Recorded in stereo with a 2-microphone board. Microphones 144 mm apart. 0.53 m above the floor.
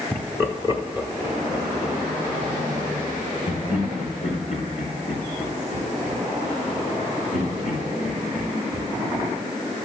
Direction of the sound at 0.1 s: 5° left (ahead or behind).